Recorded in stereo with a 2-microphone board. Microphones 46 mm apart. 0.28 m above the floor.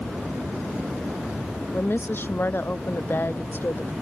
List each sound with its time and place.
1.7 s a woman speaking: 55° left (ahead or behind)